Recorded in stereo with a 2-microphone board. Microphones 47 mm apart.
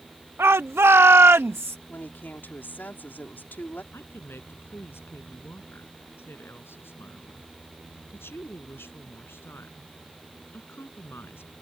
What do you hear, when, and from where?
0.4 s a shout: 70° right (ahead or behind); by 1.8 s 60° right (ahead or behind)
1.9 s a woman speaking: 45° left (ahead or behind)
3.9 s a woman speaking: 55° left (ahead or behind)